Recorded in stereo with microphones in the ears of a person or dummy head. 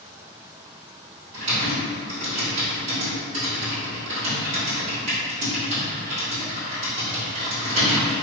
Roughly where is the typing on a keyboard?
Right.